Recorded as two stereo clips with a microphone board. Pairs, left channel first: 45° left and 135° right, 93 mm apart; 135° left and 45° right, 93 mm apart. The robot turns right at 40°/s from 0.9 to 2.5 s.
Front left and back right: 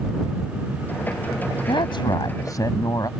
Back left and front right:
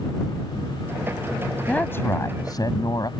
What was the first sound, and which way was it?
A woman speaking, 60° left.